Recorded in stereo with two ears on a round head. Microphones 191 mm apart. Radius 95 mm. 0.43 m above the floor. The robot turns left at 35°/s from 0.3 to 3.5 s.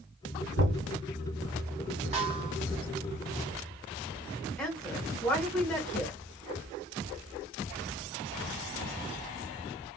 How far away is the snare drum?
About 1.8 m.